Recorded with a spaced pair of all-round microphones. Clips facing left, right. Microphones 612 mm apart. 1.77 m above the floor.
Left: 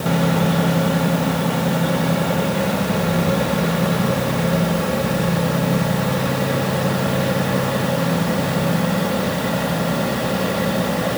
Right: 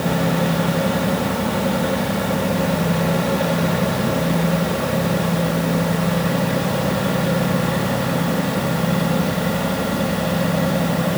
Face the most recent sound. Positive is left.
No sound to turn to.